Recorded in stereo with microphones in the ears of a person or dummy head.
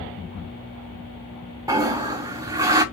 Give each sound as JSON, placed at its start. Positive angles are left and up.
{"t": 1.7, "sound": "a toilet flushing", "side_deg": -15, "distance_m": 0.5}